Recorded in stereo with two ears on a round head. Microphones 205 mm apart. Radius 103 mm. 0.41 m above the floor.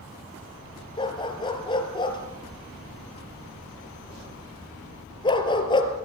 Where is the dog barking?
20° left (ahead or behind), 2.5 m.